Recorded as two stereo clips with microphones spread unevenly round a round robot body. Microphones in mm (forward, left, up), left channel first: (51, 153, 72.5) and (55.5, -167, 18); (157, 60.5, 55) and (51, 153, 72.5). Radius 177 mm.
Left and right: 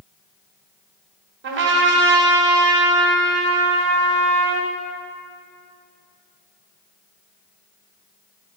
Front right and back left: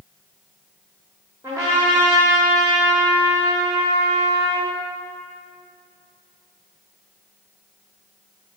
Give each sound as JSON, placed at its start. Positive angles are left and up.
{"t": 1.4, "sound": "a trumpet", "azimuth_deg": -145, "distance_m": 1.4}